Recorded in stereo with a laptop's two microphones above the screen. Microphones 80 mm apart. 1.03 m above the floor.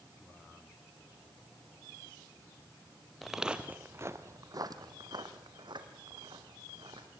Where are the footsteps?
Centre (ahead or behind), 1.3 m; by 7.1 s 75° right (ahead or behind), 3.5 m.